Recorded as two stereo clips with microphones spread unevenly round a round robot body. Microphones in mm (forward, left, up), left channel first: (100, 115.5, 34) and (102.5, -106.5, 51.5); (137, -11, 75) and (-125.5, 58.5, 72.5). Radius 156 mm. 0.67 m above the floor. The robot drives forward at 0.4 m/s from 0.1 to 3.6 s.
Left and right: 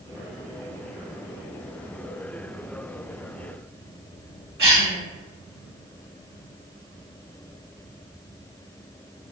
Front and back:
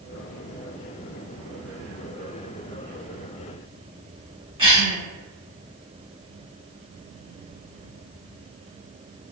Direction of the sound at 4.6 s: 130° right.